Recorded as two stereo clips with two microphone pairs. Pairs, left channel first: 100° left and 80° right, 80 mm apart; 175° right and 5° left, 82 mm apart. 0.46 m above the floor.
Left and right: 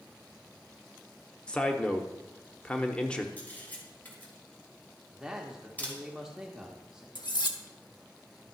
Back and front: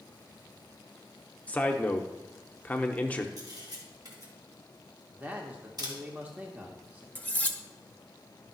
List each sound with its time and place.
1.5 s a man speaking: 160° left, 0.8 m
3.4 s a camera shutter: 35° left, 2.5 m
5.1 s a man speaking: 15° right, 1.0 m
7.2 s cutlery clinking: 115° left, 0.7 m